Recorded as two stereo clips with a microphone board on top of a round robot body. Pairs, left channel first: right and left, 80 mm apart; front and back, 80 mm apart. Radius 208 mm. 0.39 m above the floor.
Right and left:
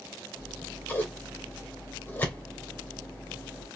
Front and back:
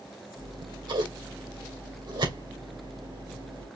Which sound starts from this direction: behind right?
Scissors, at 0.4 s.